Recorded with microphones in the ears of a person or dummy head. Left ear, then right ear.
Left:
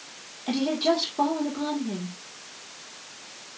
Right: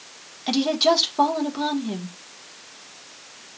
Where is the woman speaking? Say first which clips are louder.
Right 5 dB; 40° right (ahead or behind), 1.9 m.